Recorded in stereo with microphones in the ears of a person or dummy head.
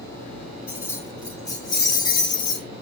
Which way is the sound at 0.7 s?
20° left (ahead or behind).